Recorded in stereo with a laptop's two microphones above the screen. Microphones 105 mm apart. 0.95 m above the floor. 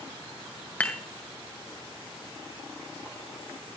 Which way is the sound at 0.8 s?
15° left (ahead or behind).